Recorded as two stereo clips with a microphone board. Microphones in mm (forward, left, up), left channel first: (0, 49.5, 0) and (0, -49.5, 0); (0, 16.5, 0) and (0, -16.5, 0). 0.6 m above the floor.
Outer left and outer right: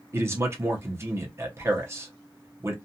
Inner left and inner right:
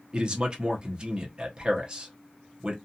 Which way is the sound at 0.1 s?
25° right (ahead or behind).